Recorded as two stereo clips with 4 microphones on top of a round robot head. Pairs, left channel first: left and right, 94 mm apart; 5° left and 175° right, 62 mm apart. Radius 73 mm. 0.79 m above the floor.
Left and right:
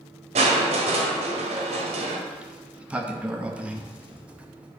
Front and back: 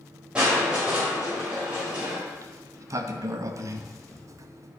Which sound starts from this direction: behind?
A sliding door, at 2.3 s.